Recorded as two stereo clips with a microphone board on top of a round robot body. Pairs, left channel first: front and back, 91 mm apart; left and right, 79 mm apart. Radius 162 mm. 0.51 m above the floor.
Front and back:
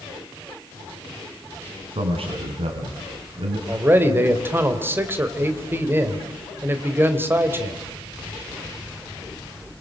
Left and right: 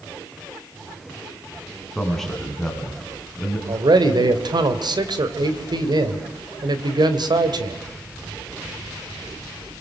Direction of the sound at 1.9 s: 175° left.